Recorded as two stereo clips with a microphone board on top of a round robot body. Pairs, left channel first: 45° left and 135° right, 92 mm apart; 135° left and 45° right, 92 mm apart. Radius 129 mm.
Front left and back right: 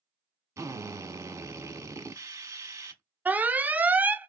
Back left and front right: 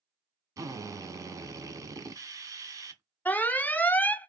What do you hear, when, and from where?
0.6 s a drill: 85° right, 1.3 m
3.2 s an alarm: straight behind, 0.7 m